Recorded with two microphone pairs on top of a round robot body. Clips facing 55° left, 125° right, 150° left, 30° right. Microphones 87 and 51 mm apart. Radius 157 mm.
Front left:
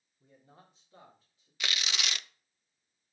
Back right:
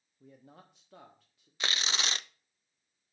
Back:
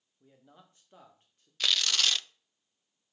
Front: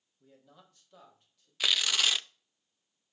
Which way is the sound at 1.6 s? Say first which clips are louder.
Back right 2 dB, even; 65° right.